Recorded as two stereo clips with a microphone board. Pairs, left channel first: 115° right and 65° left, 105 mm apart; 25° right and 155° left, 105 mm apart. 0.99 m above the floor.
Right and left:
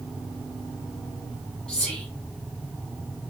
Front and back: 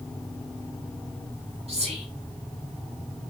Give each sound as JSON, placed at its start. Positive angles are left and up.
{"t": 1.7, "sound": "whispering", "azimuth_deg": 165, "distance_m": 1.9}